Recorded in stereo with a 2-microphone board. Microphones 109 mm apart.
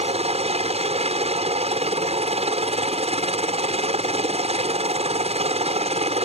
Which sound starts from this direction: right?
A helicopter, at 0.0 s.